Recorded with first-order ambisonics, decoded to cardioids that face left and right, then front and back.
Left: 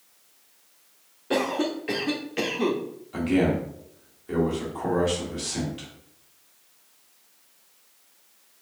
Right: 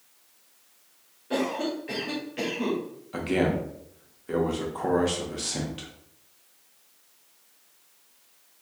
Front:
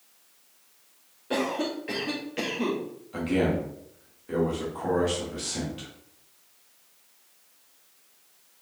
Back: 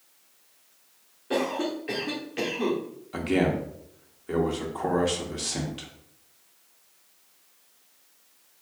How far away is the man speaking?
About 0.8 m.